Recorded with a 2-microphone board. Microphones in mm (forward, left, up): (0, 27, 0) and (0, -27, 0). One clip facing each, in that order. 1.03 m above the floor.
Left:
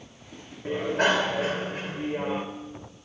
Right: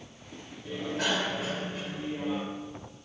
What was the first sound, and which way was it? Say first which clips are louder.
A bicycle bell: left 7 dB; 45° left (ahead or behind).